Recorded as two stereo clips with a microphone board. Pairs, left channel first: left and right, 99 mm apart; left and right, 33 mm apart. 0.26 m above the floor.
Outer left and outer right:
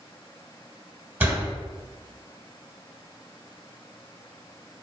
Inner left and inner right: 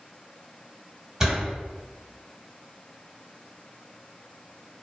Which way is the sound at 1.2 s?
20° right (ahead or behind).